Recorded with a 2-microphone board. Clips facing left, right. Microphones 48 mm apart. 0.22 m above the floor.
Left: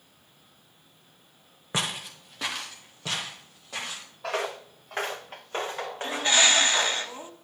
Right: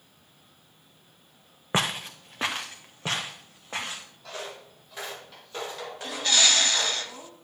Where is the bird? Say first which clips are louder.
Left 2 dB; 25° left (ahead or behind), 0.9 m.